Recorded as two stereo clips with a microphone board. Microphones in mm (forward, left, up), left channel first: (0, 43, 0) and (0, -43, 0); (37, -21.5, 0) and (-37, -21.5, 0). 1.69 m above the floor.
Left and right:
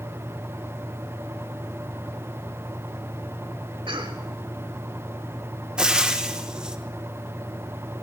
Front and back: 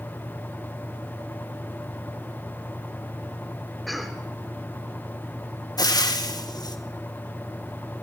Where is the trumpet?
I don't hear a trumpet.